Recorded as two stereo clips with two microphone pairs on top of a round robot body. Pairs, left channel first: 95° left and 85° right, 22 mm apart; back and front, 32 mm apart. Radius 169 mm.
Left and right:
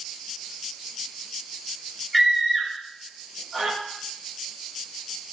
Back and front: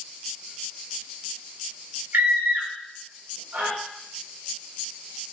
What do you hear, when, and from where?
2.1 s a scream: 5° left, 5.5 m